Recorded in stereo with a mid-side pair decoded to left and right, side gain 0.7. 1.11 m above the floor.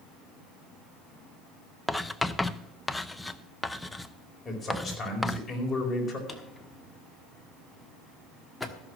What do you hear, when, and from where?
1.9 s writing: 10° left, 0.6 m
4.5 s a man speaking: 20° left, 4.5 m
6.3 s a drawer: 10° left, 1.2 m